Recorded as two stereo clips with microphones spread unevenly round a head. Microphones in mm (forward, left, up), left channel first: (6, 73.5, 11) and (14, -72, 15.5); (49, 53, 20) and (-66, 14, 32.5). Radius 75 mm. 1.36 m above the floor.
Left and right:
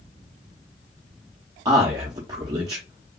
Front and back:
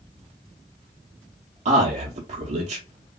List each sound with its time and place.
1.6 s a man speaking: 150° right, 0.6 m